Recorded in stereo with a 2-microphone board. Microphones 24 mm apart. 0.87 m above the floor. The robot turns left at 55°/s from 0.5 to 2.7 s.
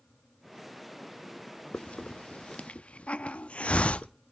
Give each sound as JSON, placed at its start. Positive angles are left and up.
{"t": 1.7, "sound": "a hiss", "side_deg": 65, "distance_m": 0.5}